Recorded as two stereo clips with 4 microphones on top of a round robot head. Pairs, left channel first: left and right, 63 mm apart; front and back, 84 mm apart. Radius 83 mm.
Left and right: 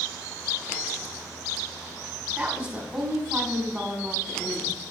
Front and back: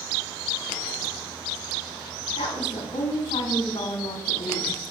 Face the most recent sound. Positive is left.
turn(degrees=-30)